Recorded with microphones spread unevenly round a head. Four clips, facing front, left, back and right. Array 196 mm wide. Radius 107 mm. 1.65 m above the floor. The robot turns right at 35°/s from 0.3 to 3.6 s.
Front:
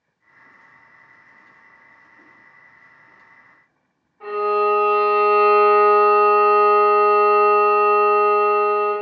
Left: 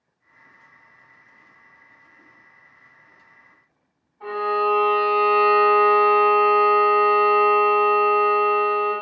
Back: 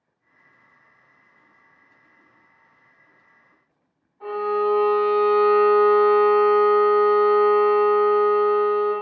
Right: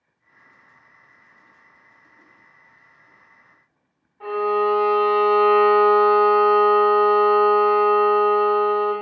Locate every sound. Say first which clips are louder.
4.2 s a violin: right 2 dB, front 3 dB; 75° right, 1.9 m